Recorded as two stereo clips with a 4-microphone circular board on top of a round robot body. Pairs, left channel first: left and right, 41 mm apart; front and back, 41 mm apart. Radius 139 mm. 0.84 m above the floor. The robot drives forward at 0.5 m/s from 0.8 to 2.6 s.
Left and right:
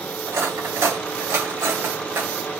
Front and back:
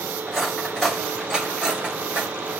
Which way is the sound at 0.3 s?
85° right.